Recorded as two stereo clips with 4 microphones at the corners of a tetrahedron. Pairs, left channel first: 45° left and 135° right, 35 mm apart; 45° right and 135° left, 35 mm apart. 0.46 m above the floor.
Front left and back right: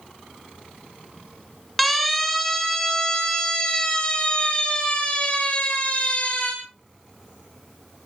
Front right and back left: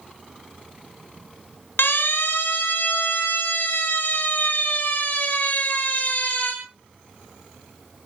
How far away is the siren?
About 5.5 m.